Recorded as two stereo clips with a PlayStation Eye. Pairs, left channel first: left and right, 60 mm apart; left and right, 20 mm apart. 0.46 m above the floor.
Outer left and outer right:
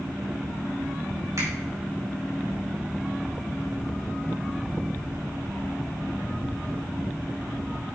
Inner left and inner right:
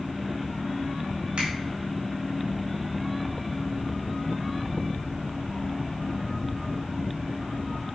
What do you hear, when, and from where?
1.4 s a finger snap: 70° right (ahead or behind), 4 m